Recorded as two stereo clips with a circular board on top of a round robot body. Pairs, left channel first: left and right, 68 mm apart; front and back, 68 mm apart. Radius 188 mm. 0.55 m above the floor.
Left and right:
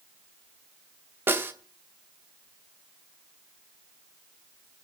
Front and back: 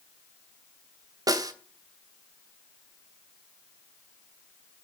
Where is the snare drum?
150° right, 2 m.